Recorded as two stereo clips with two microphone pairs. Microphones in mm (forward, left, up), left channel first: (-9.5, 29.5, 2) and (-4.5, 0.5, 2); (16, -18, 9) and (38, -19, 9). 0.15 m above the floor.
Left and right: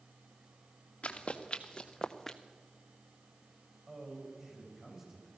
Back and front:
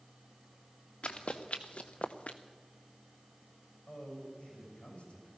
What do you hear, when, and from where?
1.0 s running footsteps: 150° left, 1.3 m; by 2.4 s straight behind, 0.8 m
3.9 s a man speaking: 150° right, 6.5 m